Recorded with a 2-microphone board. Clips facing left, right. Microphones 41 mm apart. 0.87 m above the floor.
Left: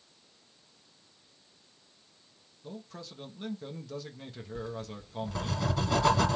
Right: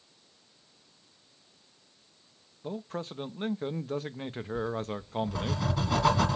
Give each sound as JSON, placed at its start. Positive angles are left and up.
{"t": 2.6, "sound": "a man speaking", "side_deg": -45, "distance_m": 0.8}
{"t": 4.5, "sound": "writing", "side_deg": -5, "distance_m": 2.0}